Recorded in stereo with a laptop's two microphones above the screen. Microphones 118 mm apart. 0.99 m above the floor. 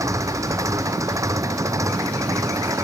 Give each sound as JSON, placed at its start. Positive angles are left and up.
{"t": 0.0, "sound": "an engine running", "side_deg": -25}